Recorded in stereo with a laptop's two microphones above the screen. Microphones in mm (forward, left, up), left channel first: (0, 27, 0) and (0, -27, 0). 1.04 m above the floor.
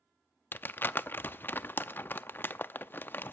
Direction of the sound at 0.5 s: 35° left (ahead or behind).